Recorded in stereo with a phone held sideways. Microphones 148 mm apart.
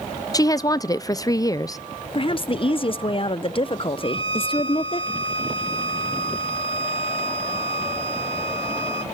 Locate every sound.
0.3 s a woman speaking: 25° left (ahead or behind), 0.5 m
2.1 s a woman speaking: 40° left (ahead or behind), 0.5 m
4.0 s a violin: 40° left (ahead or behind), 1.9 m